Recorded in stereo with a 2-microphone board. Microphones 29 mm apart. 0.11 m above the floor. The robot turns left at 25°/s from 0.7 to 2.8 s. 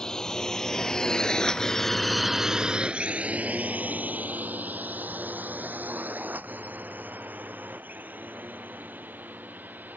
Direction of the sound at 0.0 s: 20° left (ahead or behind).